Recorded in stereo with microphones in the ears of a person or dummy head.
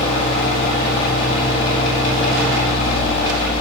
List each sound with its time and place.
0.0 s a fan: 35° left (ahead or behind), 9 m